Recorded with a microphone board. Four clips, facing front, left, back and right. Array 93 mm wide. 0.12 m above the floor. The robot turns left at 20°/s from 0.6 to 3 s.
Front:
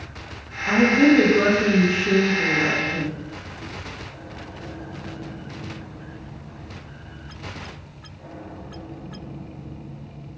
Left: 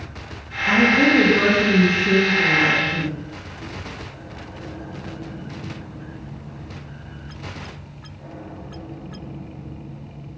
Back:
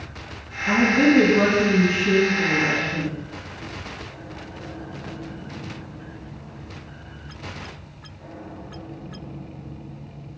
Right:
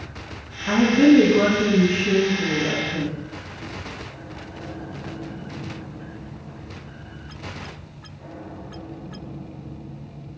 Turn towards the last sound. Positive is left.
turn(degrees=145)